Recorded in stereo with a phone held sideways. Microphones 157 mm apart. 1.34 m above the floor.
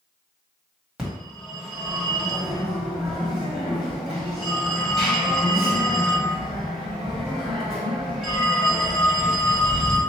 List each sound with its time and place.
1.0 s a phone ringing: 5° right (ahead or behind), 1.5 m